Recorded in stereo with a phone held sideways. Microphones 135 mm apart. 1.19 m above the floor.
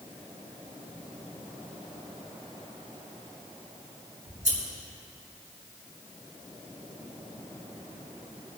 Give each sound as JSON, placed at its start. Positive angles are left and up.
{"t": 4.3, "sound": "scissors", "side_deg": -75, "distance_m": 5.0}